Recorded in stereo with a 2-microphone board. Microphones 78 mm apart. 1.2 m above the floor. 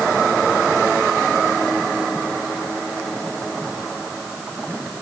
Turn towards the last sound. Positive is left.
No sound to turn to.